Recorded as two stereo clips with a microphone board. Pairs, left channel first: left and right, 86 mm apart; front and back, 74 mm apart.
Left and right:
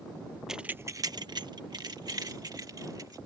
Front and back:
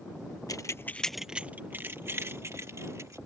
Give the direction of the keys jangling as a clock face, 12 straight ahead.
12 o'clock.